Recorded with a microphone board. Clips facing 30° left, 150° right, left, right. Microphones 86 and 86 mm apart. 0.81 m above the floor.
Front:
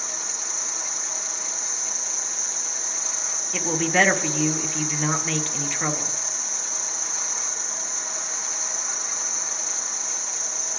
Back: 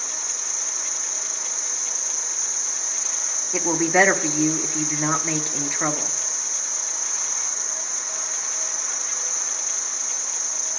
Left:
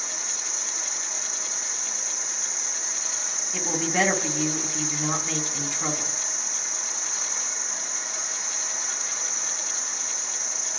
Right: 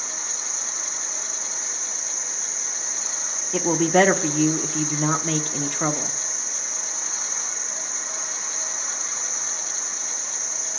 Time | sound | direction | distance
0.0 | an insect | straight ahead | 4 m
3.5 | a woman speaking | 80° right | 0.7 m